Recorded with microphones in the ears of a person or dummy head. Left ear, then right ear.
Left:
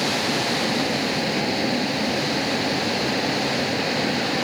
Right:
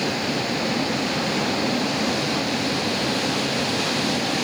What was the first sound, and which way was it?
A vehicle, 15° left (ahead or behind).